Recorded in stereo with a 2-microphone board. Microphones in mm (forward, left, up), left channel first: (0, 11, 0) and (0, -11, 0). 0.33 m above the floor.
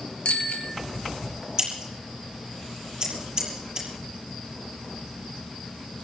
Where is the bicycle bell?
60° left (ahead or behind), 4.5 m.